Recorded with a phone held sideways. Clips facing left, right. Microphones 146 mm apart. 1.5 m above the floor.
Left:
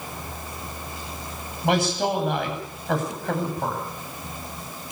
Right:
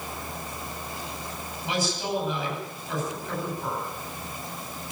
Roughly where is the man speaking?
Left.